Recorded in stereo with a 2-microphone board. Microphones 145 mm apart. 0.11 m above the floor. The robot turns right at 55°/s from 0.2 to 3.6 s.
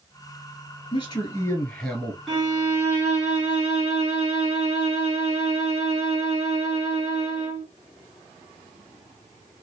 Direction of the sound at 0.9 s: 120° left.